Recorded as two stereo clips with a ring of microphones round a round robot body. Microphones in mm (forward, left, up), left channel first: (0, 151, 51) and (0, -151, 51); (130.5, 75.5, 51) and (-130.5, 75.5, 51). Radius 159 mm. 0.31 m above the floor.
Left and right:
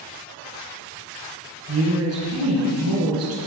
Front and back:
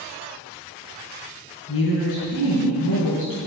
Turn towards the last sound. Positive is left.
turn(degrees=-50)